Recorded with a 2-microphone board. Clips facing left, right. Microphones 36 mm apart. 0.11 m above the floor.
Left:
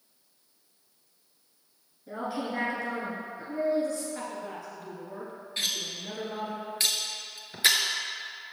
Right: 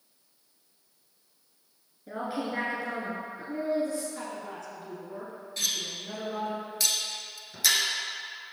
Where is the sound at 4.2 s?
20° left (ahead or behind), 1.8 m.